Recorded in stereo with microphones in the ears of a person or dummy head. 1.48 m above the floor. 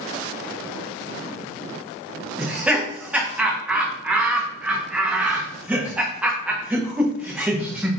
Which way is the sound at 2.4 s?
10° right (ahead or behind).